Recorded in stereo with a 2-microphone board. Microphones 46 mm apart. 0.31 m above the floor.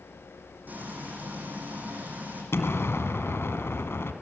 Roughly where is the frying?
Right.